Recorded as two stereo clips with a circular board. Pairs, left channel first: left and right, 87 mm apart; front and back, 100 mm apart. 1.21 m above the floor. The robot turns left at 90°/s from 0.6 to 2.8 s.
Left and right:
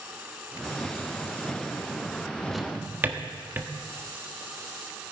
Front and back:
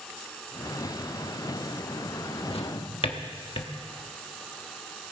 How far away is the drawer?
About 1.2 m.